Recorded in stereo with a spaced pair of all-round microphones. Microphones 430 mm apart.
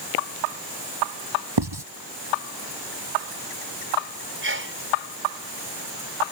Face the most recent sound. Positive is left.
turn(degrees=-25)  # may be behind; listen again after turning